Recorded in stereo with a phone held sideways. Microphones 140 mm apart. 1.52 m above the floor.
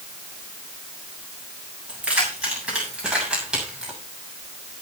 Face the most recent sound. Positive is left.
turn(degrees=-5)  # may be behind; listen again after turning